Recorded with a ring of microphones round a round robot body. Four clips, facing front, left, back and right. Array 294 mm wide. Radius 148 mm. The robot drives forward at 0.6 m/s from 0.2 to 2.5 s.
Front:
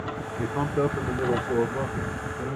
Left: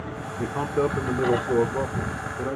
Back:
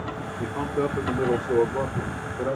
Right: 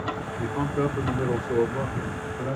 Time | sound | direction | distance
0.4 | a man speaking | 45° left | 0.9 m